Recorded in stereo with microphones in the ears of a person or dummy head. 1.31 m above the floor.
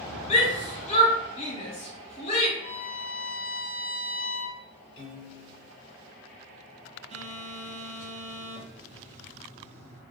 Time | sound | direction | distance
0.3 | a shout | 30° left (ahead or behind) | 1.0 m
2.6 | a violin | 35° left (ahead or behind) | 1.3 m
5.0 | a piano | 60° left (ahead or behind) | 0.9 m
7.1 | a phone buzzing | 30° right (ahead or behind) | 0.5 m